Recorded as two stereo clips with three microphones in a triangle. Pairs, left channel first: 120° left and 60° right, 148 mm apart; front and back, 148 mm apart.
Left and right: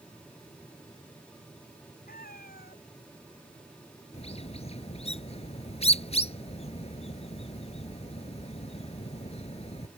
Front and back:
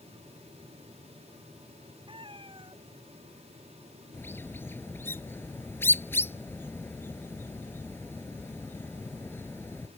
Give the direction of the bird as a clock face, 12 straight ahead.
9 o'clock.